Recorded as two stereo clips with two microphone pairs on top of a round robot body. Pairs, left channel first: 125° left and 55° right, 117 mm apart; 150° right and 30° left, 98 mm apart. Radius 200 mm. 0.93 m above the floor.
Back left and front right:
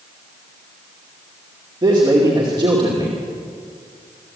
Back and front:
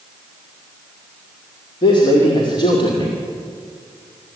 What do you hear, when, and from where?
1.8 s a man speaking: 110° right, 2.5 m